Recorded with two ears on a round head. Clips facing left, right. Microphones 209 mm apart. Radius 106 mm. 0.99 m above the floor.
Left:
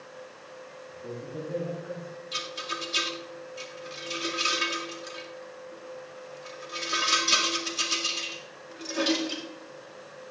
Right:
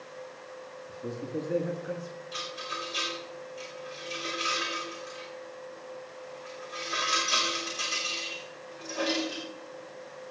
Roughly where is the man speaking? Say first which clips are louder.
Right 4 dB; right.